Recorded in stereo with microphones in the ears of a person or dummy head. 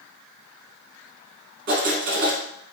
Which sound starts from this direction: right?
Writing, at 1.7 s.